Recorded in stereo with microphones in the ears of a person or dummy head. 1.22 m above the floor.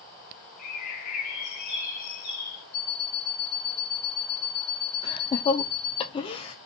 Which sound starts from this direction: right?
An alarm clock, at 2.7 s.